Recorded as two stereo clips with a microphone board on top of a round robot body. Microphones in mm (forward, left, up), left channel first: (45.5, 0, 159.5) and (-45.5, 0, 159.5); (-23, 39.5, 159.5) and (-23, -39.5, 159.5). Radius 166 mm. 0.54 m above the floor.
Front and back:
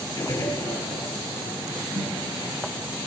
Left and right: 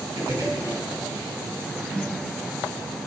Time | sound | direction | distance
0.2 | a gunshot | 50° right | 3.5 m
1.9 | a snare drum | 165° left | 2 m